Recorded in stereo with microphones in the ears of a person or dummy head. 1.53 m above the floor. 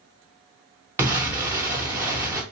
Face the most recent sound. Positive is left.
turn(degrees=-15)  # may be behind; listen again after turning